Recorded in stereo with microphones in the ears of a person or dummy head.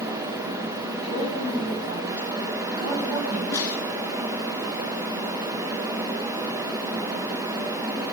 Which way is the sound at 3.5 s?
20° left (ahead or behind).